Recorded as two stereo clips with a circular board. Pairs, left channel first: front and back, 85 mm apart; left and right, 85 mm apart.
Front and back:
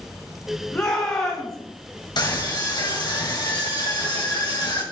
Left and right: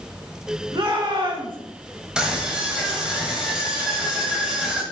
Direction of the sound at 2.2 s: 10° right.